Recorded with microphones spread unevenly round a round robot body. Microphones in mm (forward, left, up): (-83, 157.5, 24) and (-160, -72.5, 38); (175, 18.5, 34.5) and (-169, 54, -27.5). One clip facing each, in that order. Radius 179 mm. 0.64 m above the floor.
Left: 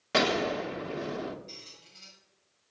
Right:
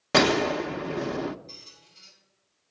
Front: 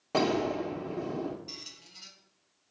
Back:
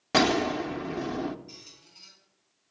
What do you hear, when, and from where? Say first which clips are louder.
0.1 s a gunshot: right 5 dB, back 3 dB; 140° right, 0.6 m
1.5 s a squeak: left 1 dB, front 1 dB; 5° left, 2.5 m